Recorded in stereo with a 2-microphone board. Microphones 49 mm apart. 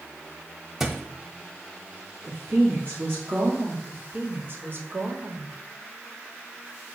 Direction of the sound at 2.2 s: 45° right (ahead or behind).